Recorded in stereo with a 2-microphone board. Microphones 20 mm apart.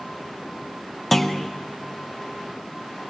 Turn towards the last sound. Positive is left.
turn(degrees=5)  # may be behind; listen again after turning